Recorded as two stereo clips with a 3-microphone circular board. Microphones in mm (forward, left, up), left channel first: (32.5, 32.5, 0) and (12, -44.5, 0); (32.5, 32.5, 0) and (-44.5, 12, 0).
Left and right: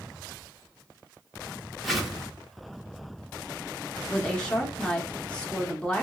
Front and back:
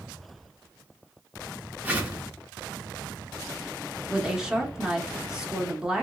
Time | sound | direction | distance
1.8 | a whoosh | 165° left | 0.9 m
4.1 | a woman speaking | 125° left | 0.8 m